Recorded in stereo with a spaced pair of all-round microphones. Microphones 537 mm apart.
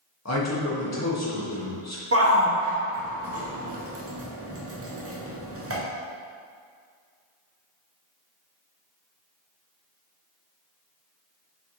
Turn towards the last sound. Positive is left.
turn(degrees=-25)  # may be behind; listen again after turning